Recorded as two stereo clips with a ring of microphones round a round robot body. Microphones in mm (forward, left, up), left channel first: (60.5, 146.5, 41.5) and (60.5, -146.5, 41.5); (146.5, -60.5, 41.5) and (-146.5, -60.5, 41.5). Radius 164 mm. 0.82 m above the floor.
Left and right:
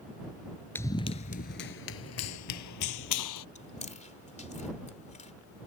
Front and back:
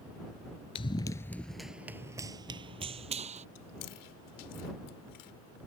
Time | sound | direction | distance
0.8 | running footsteps | 20° left | ?
3.5 | chewing | 25° left | ?